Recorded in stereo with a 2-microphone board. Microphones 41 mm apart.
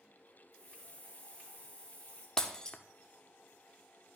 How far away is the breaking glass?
About 0.6 m.